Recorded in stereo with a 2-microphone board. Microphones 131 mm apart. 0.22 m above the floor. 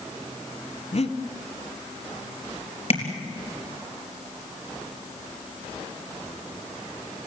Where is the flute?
No flute in this recording.